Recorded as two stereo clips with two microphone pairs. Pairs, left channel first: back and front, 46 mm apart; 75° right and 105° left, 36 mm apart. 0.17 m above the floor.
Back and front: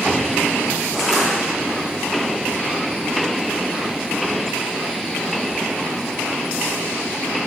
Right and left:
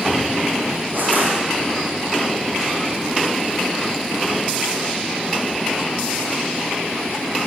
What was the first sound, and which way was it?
Crushing, 80° left.